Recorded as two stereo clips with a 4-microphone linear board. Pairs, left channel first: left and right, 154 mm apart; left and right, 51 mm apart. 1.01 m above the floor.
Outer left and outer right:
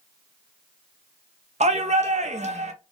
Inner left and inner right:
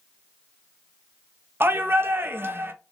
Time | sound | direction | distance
1.6 | a shout | 45° right (ahead or behind) | 0.6 m